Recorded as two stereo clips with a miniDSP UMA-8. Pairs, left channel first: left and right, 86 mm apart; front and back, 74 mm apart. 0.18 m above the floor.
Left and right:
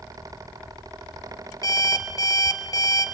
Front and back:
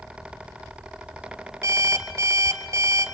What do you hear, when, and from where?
1.6 s an alarm clock: 135° left, 1.7 m